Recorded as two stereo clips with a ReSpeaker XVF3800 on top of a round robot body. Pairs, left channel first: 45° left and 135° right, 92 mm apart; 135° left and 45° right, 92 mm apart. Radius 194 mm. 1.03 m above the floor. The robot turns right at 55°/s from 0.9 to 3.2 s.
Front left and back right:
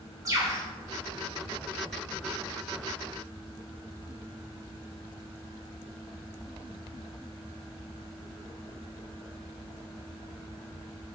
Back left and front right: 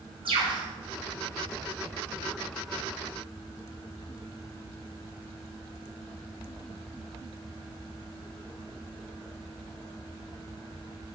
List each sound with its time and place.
0.2 s a bird: 75° right, 1.1 m